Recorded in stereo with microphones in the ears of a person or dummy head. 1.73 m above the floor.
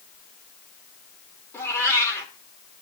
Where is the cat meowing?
15° left (ahead or behind), 2.5 m.